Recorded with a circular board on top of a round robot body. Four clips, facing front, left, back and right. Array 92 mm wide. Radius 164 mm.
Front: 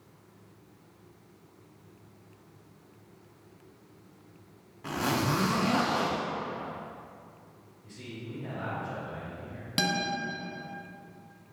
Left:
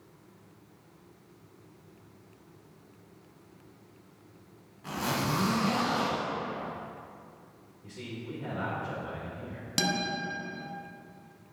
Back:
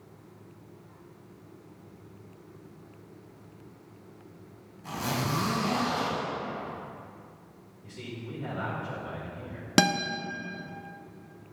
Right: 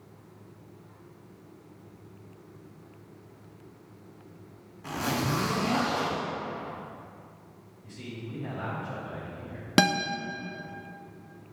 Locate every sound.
4.8 s a zipper: 10° right, 1.5 m
7.8 s a man speaking: 130° left, 2.5 m
9.8 s a guitar: 135° right, 0.8 m